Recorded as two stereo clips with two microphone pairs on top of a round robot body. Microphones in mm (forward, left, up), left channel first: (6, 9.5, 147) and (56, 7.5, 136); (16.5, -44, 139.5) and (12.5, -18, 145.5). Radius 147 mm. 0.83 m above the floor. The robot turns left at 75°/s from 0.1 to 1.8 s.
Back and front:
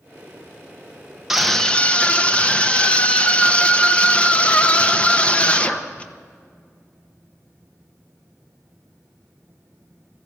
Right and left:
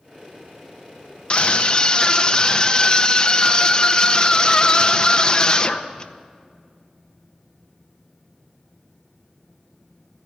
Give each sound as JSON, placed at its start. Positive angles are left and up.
{"t": 1.3, "sound": "a scream", "azimuth_deg": -75, "distance_m": 1.4}